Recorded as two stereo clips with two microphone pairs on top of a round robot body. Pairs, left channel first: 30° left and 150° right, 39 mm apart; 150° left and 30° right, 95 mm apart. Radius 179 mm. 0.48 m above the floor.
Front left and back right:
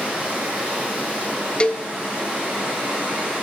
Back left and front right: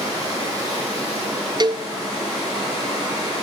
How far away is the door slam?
No door slam in this recording.